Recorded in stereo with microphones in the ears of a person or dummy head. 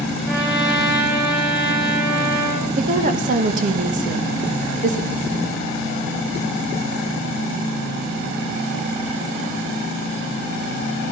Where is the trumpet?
10° right (ahead or behind), 6.5 m.